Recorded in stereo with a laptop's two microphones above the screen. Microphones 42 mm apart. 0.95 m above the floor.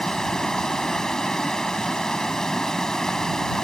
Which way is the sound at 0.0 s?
15° left (ahead or behind).